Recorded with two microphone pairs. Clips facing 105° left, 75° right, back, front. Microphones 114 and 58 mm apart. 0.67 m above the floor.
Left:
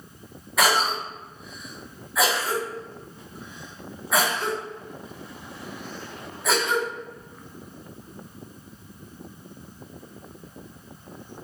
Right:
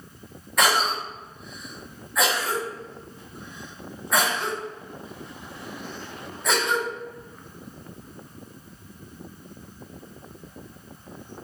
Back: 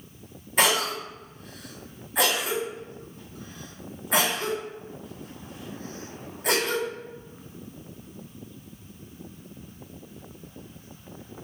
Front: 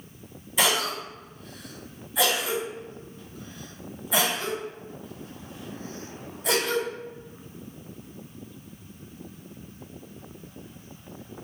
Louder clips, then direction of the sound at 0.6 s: Even, back 2 dB; 170° right.